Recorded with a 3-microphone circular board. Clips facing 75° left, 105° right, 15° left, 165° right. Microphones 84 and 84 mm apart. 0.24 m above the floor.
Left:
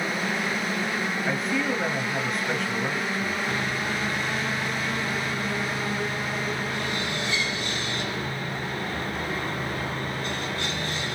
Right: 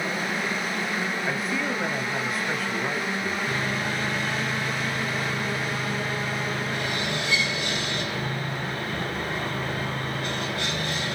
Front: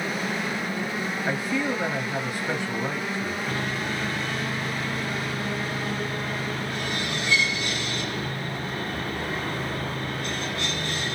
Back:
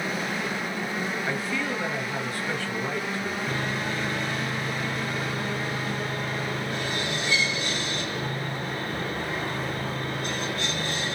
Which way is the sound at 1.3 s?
25° right.